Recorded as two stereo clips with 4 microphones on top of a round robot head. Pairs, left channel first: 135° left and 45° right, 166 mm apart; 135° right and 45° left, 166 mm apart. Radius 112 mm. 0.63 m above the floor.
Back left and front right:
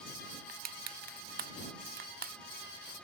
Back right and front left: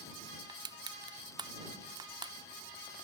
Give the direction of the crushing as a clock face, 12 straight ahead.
1 o'clock.